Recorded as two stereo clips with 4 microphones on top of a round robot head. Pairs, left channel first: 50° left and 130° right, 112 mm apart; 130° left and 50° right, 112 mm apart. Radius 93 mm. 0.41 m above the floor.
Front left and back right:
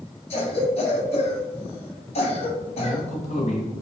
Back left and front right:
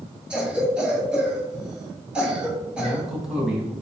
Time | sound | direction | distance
0.3 | a cough | 30° left | 3.5 m
2.8 | a man speaking | 35° left | 3 m